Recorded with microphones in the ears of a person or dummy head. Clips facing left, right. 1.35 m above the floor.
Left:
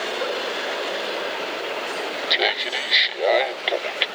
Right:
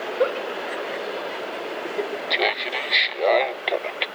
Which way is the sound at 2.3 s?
Centre (ahead or behind).